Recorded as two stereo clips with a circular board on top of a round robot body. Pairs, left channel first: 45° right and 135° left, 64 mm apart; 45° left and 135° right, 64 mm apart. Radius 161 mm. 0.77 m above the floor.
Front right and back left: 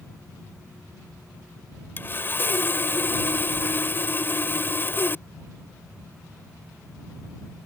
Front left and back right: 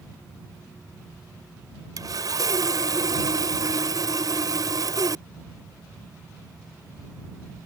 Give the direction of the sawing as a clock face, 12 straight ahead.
4 o'clock.